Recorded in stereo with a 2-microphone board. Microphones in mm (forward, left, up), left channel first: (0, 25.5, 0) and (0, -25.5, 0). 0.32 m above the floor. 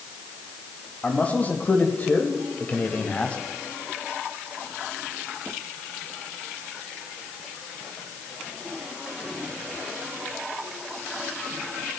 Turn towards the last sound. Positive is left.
turn(degrees=25)  # may be behind; listen again after turning